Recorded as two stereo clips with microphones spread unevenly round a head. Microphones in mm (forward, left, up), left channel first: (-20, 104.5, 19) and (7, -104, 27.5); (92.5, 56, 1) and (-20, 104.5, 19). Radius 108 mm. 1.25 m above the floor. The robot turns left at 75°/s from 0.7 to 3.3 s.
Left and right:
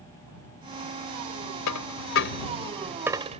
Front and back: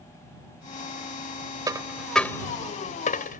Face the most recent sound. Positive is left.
turn(degrees=-20)